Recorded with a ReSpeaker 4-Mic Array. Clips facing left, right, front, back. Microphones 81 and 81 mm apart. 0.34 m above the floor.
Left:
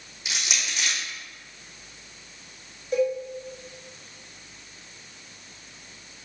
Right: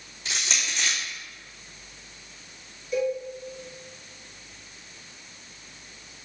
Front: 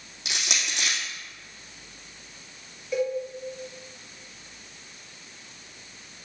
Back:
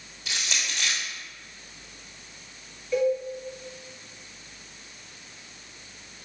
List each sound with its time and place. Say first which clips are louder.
0.2 s crushing: even, front 1 dB; 10° left, 2.5 m
2.9 s a cowbell: left 2 dB, back 4 dB; 75° left, 1.7 m